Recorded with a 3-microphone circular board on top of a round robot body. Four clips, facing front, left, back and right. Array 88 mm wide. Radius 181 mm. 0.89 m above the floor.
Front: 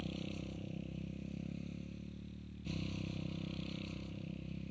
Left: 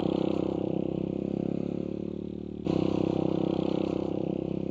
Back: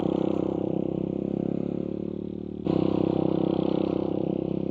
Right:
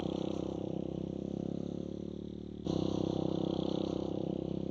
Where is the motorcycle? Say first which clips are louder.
Left 9 dB, back 20 dB; 155° left; by 4.7 s 165° left.